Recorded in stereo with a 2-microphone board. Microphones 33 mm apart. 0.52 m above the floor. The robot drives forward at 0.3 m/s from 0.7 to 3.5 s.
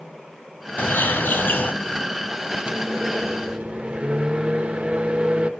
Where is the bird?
85° left, 1.2 m; by 1.7 s 75° left (ahead or behind), 1.3 m.